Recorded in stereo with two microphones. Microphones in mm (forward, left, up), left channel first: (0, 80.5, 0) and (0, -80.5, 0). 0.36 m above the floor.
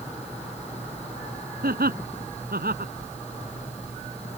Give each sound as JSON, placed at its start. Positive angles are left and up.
{"t": 1.6, "sound": "laughter", "side_deg": -75}